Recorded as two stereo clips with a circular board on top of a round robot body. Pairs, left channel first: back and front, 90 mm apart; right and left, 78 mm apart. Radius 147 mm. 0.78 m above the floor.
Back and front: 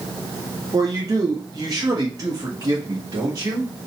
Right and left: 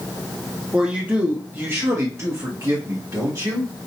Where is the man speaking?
15° left, 1.0 m; by 3.9 s 50° left, 2 m.